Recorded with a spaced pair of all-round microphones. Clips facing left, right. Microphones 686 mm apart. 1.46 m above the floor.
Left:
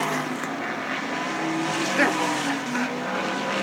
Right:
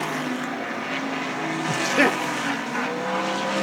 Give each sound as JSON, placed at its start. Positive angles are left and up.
{"t": 1.7, "sound": "laughter", "side_deg": -50, "distance_m": 0.5}